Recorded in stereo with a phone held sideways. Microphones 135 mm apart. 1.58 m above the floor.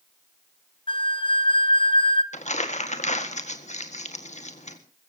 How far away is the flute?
About 1.0 m.